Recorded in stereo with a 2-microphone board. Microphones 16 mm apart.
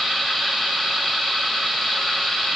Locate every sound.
Only background noise.